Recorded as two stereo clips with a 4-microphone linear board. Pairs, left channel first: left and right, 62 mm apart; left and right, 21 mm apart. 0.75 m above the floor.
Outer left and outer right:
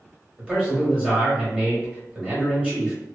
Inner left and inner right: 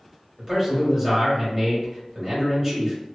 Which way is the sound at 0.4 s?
20° right (ahead or behind).